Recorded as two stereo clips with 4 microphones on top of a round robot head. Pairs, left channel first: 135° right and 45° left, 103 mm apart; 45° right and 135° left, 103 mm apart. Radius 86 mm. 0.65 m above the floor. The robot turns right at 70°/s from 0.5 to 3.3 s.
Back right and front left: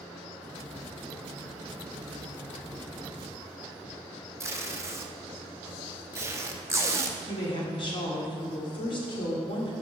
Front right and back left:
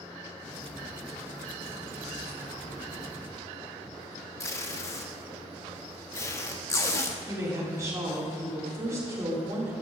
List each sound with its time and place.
4.4 s tape being pulled: straight ahead, 1.0 m
7.3 s a woman speaking: 170° right, 2.5 m